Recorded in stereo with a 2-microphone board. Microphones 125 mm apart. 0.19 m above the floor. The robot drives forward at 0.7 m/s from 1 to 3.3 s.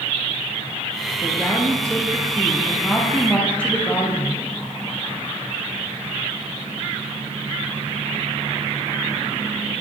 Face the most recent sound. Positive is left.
turn(degrees=10)  # may be behind; listen again after turning